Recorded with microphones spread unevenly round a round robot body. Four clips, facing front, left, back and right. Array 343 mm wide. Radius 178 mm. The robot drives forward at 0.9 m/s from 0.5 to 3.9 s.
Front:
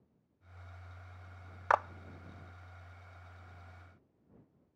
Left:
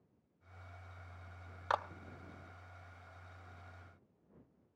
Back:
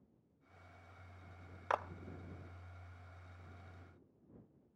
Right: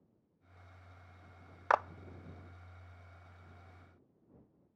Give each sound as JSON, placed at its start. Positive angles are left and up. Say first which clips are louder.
{"t": 1.7, "sound": "a clap", "louder": "right 6 dB, front 8 dB", "azimuth_deg": -30, "distance_m": 0.5}